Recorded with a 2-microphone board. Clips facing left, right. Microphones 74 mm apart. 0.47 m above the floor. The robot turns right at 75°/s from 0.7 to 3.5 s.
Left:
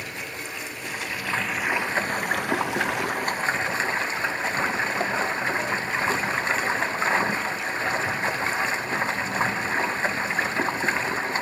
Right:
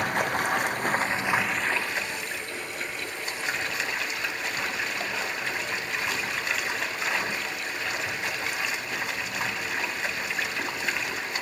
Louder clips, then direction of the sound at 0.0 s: Right 9 dB; 60° right.